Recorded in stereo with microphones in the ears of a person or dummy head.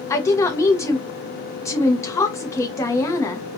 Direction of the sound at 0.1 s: 15° left (ahead or behind).